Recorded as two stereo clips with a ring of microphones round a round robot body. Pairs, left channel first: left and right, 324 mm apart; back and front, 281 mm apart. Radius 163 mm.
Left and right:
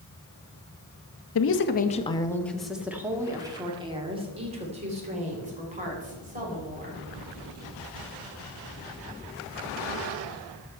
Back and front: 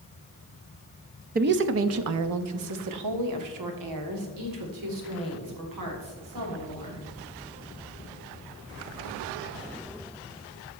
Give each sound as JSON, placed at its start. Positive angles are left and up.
{"t": 1.4, "sound": "a woman speaking", "azimuth_deg": 55, "distance_m": 0.7}